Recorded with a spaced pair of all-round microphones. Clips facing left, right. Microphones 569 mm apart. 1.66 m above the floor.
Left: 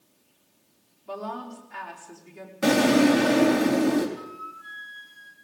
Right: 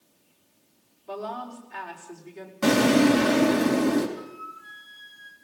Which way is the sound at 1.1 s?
35° left (ahead or behind).